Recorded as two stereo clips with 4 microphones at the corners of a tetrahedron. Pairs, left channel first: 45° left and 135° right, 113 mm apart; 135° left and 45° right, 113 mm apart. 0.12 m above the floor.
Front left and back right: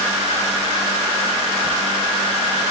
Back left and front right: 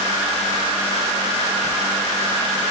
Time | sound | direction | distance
1.6 | a zipper | 135° left | 4.5 m